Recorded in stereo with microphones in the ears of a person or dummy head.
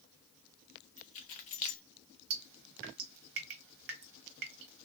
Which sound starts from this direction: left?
Keys jangling, at 1.0 s.